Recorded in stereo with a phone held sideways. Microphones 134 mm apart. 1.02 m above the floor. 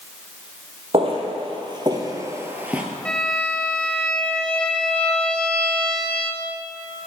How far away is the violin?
About 0.7 m.